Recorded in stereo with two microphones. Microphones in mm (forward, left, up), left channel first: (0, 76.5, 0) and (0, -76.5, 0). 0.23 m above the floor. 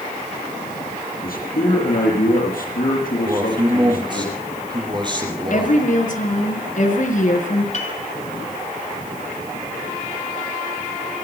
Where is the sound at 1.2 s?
70° left (ahead or behind), 6.5 m.